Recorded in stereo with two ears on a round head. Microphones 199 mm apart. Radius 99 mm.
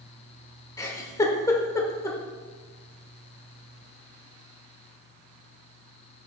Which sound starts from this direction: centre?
A giggle, at 0.8 s.